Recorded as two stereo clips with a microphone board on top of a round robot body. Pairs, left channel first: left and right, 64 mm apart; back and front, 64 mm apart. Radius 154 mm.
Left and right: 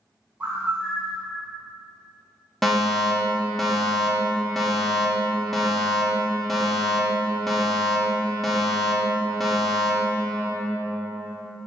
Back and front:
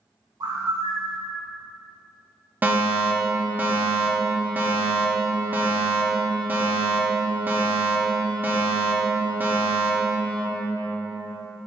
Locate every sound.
0.4 s a bird: 20° right, 0.7 m
2.6 s a fire alarm: 5° left, 1.5 m